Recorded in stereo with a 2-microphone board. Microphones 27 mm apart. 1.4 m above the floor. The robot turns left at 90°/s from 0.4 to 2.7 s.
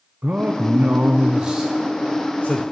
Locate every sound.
0.2 s a man speaking: 60° right, 0.8 m; by 2.6 s 100° left, 0.8 m